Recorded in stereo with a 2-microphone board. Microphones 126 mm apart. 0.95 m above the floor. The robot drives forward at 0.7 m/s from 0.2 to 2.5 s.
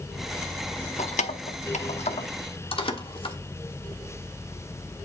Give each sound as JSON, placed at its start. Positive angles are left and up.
{"t": 1.0, "sound": "keys jangling", "side_deg": 70, "distance_m": 0.9}